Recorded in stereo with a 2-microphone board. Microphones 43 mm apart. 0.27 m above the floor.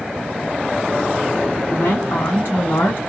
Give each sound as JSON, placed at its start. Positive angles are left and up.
{"t": 1.7, "sound": "a woman speaking", "side_deg": 60, "distance_m": 2.5}